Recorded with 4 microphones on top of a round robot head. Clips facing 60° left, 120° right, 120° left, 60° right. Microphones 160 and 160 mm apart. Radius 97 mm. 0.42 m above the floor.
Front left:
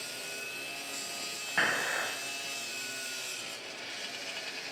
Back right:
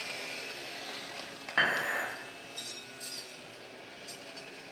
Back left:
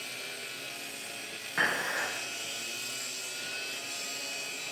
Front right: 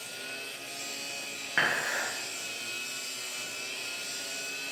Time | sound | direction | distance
1.6 | dishes clattering | 30° right | 1.7 m